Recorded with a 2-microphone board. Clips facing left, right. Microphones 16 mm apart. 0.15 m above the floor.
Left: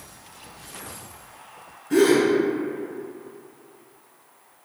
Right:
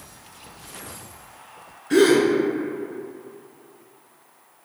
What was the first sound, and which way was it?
A gasp, 50° right (ahead or behind).